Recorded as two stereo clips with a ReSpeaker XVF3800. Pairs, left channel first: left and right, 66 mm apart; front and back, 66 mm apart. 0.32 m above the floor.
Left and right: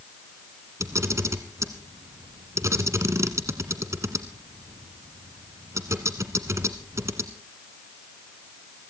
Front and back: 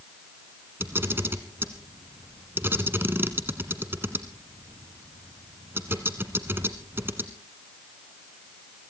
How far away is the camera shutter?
About 1.6 m.